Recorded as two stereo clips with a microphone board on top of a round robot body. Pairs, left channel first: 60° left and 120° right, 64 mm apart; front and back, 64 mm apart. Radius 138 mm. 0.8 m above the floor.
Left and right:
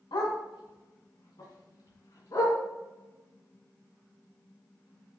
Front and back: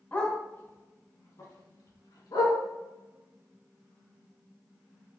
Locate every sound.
0.1 s a dog barking: 70° left, 2.5 m; by 2.6 s 20° left, 4 m